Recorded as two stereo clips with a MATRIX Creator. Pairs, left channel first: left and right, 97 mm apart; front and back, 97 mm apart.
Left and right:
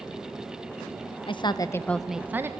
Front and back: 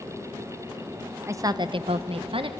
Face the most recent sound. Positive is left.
turn(degrees=-155)